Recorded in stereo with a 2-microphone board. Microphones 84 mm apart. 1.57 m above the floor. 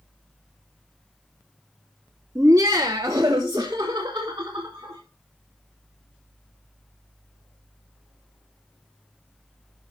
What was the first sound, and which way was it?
Laughter, 35° right (ahead or behind).